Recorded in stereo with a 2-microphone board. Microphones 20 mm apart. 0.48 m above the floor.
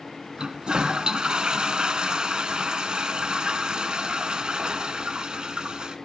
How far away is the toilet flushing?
About 0.7 m.